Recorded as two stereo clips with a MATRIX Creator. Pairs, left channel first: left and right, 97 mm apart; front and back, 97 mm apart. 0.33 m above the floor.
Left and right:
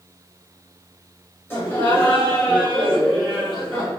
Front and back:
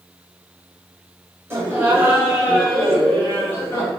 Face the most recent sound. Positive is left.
turn(degrees=-20)